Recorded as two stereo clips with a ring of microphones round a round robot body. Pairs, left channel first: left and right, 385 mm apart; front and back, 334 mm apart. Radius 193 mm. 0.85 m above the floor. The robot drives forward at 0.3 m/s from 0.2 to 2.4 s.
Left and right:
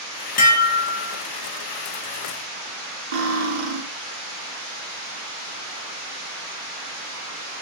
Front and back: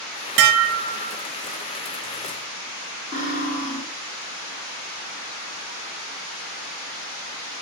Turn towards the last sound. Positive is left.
turn(degrees=-105)